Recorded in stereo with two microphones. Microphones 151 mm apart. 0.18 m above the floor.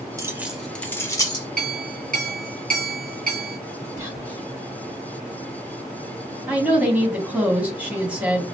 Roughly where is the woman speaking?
Centre.